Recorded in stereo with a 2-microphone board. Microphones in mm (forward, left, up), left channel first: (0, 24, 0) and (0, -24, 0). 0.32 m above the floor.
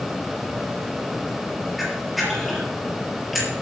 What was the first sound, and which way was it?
A camera shutter, centre (ahead or behind).